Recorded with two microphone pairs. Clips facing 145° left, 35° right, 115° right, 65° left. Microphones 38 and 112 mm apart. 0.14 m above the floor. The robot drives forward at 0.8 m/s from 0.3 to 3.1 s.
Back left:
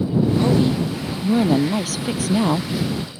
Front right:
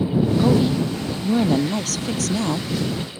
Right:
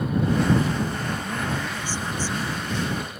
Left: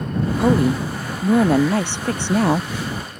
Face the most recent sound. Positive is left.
turn(degrees=85)